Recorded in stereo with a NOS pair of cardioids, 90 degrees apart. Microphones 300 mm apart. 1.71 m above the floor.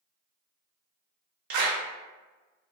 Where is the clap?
70° right, 1.3 m.